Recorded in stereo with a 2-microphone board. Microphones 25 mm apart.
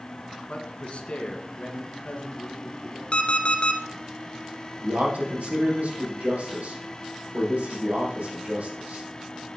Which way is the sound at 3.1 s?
45° left (ahead or behind).